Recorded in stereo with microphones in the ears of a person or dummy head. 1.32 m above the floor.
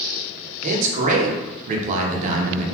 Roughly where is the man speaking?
Right.